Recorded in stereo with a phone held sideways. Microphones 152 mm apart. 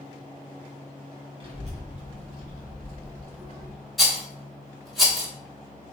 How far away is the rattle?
About 1.1 m.